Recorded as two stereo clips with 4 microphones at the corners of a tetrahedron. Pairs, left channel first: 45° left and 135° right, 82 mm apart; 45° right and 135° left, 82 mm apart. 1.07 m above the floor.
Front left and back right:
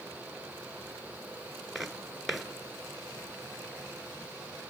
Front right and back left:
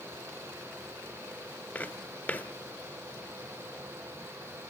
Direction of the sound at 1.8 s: 50° right.